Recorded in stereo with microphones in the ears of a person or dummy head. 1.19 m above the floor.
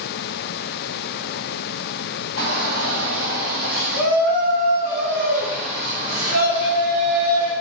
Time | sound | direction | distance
2.4 | a shout | 65° left (ahead or behind) | 1.6 m